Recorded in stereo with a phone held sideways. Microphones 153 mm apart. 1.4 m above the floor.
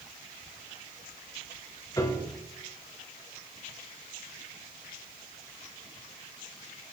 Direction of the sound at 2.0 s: 25° left (ahead or behind).